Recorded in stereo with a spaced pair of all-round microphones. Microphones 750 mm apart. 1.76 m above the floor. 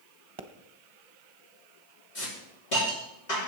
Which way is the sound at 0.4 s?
40° right (ahead or behind).